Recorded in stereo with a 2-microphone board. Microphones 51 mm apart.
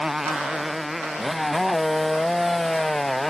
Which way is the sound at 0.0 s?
5° right (ahead or behind).